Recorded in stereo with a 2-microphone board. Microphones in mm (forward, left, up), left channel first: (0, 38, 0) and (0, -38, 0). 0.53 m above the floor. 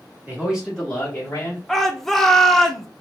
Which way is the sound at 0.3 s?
25° right (ahead or behind).